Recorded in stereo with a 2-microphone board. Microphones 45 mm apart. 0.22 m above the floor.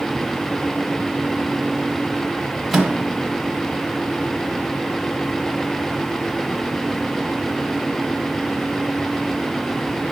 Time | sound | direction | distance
2.7 | a microwave | centre (ahead or behind) | 0.8 m